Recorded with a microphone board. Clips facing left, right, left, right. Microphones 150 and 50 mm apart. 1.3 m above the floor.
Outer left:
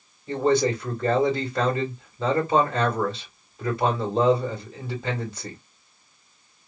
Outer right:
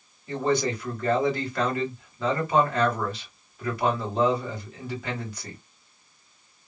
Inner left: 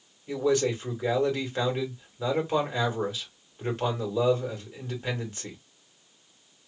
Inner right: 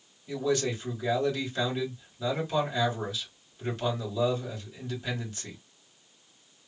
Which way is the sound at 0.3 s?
30° left (ahead or behind).